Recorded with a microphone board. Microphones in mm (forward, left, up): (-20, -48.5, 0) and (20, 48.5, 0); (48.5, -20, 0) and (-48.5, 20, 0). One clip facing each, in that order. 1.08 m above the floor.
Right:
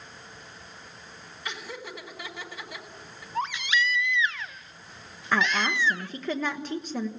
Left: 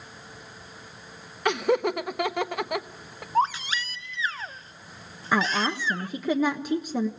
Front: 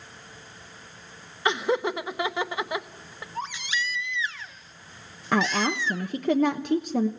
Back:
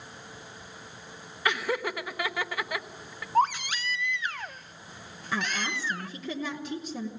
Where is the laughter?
45° left, 1.2 m.